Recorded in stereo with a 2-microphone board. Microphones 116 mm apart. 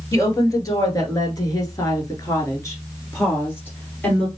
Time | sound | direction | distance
0.1 | a woman speaking | 30° left (ahead or behind) | 1.8 m